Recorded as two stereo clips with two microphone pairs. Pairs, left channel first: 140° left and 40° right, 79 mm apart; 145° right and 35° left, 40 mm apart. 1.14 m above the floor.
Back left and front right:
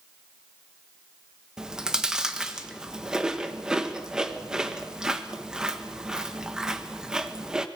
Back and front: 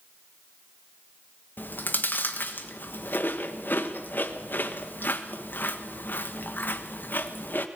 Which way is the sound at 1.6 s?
125° right.